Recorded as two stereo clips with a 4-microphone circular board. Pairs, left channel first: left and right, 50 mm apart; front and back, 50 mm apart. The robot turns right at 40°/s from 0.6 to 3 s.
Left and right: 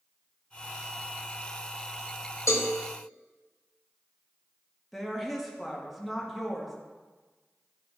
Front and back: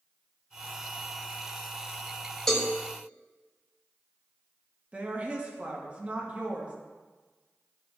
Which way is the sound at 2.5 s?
80° left.